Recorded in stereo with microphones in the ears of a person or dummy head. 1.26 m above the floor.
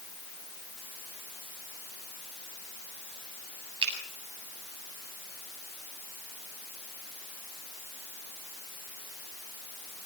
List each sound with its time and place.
3.8 s a finger snap: 30° right (ahead or behind), 7.5 m